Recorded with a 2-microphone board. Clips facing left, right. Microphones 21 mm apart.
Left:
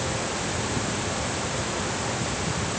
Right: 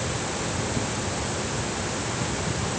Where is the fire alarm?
I don't hear a fire alarm.